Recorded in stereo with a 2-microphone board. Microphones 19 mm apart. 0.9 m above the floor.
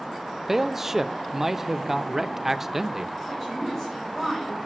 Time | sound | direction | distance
0.5 | a man speaking | 20° right (ahead or behind) | 0.5 m
3.3 | a woman speaking | 10° left (ahead or behind) | 5 m